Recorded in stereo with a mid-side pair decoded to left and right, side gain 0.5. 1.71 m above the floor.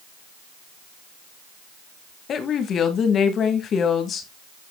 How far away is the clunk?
No clunk in this recording.